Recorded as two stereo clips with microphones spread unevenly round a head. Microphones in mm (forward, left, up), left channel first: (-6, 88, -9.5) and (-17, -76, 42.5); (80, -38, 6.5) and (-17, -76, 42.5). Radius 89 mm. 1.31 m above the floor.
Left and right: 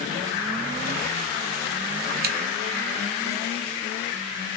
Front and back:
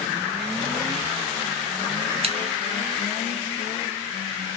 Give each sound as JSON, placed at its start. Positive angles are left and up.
{"t": 2.2, "sound": "scissors", "azimuth_deg": -130, "distance_m": 0.8}